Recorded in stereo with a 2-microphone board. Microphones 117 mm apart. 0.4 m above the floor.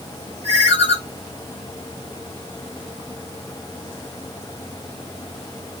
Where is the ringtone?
70° right (ahead or behind), 2.5 m.